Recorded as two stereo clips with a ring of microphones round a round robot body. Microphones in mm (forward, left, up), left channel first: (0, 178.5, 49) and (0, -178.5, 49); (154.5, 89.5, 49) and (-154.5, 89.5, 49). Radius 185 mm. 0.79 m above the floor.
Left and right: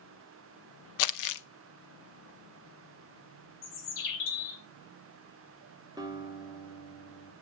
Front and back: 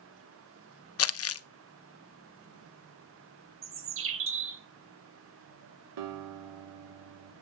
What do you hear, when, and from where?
1.0 s crumpling: 45° left, 0.7 m
3.6 s a bird: 130° left, 2 m
6.0 s a guitar: 170° right, 2.0 m